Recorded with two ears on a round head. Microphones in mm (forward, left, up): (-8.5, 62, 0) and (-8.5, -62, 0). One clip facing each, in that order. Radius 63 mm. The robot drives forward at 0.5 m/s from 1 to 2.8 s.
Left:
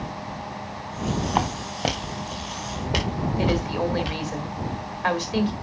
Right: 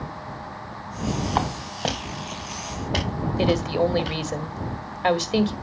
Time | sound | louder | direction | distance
1.4 | footsteps | left 1 dB | 10° left (ahead or behind) | 3 m
3.4 | a woman speaking | right 4 dB | 30° right (ahead or behind) | 1.6 m